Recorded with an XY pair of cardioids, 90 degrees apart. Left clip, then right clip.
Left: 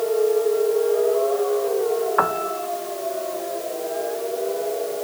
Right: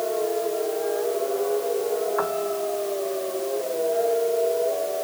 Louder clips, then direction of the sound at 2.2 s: Left 4 dB; 60° left.